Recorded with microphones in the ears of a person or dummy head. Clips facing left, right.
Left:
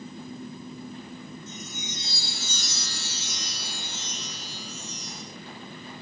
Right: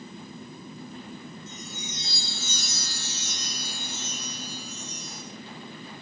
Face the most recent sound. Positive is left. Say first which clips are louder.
# left 1 dB
turn(degrees=-60)  # may be behind; listen again after turning